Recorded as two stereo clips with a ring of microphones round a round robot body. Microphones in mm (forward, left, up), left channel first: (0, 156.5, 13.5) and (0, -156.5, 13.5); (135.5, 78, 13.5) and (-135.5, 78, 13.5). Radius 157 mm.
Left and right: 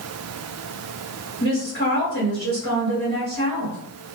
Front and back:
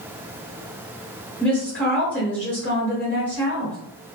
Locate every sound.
1.4 s a woman speaking: 80° right, 1.5 m